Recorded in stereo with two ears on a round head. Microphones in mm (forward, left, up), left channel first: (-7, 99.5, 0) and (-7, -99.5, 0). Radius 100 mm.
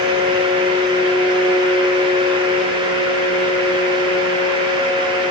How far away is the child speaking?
I don't hear a child speaking.